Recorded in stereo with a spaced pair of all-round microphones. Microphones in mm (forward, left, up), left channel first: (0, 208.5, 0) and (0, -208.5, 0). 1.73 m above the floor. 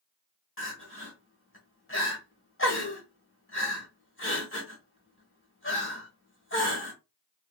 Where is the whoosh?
No whoosh in this recording.